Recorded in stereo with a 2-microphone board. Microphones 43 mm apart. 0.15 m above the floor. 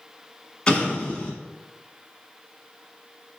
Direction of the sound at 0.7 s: 20° left (ahead or behind).